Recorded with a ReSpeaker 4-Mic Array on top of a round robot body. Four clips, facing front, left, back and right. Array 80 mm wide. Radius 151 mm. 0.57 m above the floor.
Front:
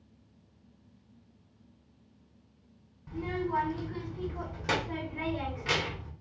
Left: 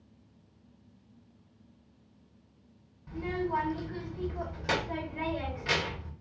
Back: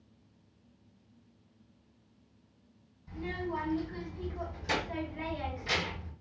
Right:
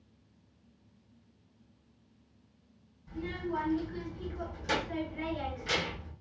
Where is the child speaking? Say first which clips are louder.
Left 4 dB, front 4 dB; 35° left, 2.5 m.